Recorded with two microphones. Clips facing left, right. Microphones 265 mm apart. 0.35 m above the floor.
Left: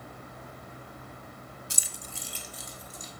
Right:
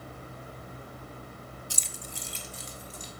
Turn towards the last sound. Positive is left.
turn(degrees=-35)  # may be behind; listen again after turning